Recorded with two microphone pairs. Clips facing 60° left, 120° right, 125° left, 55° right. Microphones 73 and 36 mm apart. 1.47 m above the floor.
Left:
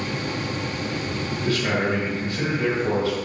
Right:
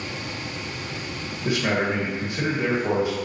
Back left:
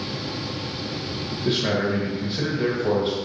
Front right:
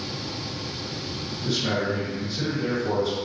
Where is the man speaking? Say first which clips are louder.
Even, back left 3 dB; 170° left, 2 m.